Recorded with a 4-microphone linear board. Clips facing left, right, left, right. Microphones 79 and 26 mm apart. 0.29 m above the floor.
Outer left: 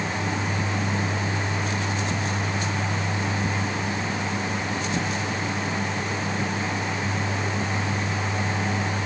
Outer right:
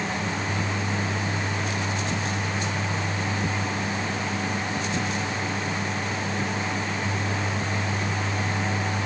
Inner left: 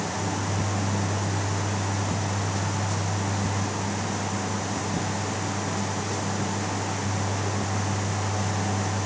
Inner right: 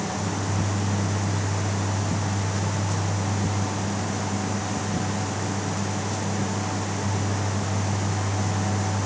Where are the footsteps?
No footsteps in this recording.